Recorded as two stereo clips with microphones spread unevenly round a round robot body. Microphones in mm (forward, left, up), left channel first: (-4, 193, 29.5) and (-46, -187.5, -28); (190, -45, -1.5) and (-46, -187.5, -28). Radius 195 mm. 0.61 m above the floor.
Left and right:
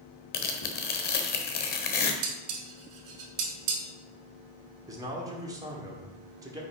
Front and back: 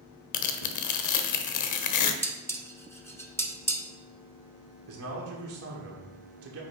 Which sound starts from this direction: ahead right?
Dishes clattering, at 2.2 s.